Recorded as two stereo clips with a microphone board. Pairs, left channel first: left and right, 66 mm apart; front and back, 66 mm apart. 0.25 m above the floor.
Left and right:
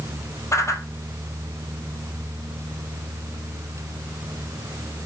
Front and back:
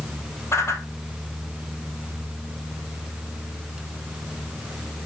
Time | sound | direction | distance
0.5 | a whoosh | 45° left | 1.7 m